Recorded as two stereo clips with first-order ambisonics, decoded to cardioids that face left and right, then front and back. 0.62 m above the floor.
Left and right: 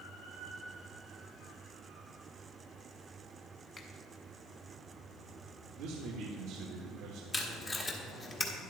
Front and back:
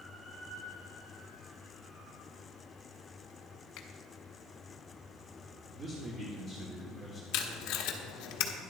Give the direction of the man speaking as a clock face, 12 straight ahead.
4 o'clock.